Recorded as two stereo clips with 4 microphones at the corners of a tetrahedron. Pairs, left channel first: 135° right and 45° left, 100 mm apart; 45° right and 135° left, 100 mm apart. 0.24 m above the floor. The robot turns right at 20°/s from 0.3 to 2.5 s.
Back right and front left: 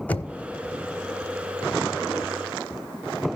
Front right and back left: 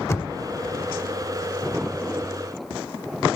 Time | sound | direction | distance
0.1 | knocking | 75° right | 0.8 m